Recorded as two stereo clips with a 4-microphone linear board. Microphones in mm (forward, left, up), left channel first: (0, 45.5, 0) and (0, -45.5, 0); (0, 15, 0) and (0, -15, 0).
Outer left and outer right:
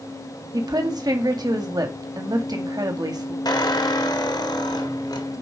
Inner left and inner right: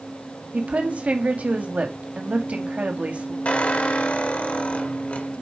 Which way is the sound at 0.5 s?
50° right (ahead or behind).